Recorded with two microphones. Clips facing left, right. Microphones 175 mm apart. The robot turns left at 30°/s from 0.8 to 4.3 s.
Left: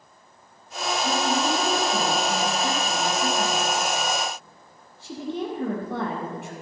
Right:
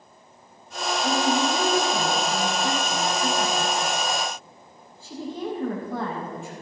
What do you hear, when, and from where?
1.0 s a woman speaking: 165° right, 4.5 m; by 6.5 s 95° left, 4.5 m